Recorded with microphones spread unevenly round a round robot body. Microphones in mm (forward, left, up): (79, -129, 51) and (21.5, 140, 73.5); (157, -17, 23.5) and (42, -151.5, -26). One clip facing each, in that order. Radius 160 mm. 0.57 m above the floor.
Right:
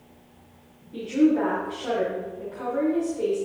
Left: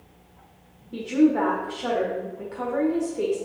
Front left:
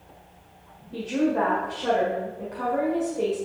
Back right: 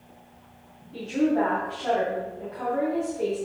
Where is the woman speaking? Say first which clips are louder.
Left 1 dB, back right 1 dB; 90° left, 1.7 m.